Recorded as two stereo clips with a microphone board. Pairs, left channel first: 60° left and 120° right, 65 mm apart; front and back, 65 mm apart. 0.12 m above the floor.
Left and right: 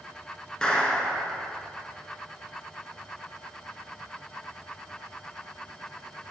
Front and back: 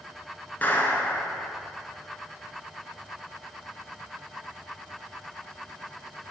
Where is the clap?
5° right, 1.3 m.